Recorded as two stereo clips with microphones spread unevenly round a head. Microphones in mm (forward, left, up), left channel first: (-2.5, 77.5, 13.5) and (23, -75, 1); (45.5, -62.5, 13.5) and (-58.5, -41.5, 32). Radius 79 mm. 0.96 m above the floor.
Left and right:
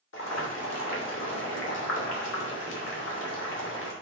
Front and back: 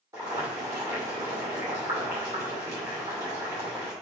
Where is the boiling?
95° left, 2.5 m.